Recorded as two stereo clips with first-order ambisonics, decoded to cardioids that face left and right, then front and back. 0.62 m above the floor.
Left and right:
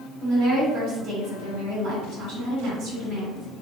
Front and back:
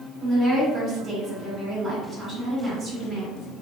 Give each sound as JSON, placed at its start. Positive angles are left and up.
{"t": 0.2, "sound": "a woman speaking", "azimuth_deg": -100, "distance_m": 1.9}